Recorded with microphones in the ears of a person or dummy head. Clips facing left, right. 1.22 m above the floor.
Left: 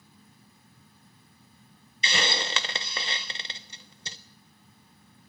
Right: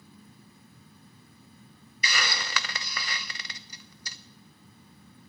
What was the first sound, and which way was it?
A hiss, 25° left (ahead or behind).